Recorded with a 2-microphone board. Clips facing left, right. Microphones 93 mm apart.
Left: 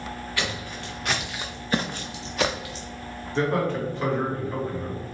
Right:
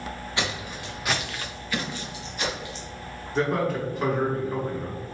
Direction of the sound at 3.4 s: 10° right (ahead or behind).